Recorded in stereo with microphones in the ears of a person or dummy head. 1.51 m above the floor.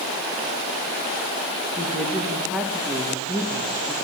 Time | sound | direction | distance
1.8 | a woman speaking | centre (ahead or behind) | 2 m